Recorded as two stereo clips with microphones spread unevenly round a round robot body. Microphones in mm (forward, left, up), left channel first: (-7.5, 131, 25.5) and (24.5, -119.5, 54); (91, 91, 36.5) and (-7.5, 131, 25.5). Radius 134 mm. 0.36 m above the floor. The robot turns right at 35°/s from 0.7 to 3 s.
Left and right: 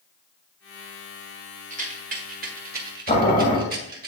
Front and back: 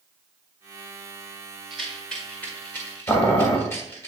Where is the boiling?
40° left, 1.7 m.